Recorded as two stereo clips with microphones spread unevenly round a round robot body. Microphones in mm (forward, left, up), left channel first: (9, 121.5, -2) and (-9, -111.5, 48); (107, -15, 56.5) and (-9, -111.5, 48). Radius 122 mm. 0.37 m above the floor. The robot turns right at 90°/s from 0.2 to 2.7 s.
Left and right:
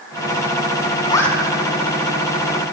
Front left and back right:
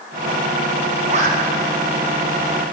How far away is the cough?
No cough in this recording.